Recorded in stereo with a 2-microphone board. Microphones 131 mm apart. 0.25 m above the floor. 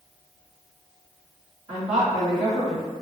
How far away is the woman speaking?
About 2.0 m.